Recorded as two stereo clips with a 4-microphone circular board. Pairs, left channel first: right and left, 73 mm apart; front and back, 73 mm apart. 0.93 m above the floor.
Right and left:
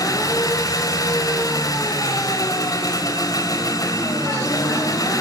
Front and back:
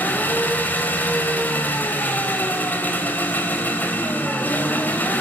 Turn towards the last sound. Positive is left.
turn(degrees=-65)